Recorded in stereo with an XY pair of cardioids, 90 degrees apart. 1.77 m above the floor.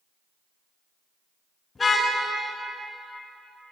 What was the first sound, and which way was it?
A car horn, 35° left.